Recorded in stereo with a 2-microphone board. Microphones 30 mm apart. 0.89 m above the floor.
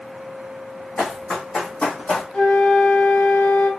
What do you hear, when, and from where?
1.0 s running footsteps: 45° left (ahead or behind), 2 m; by 2.2 s 40° left (ahead or behind), 1.3 m
2.3 s a flute: 60° left (ahead or behind), 0.7 m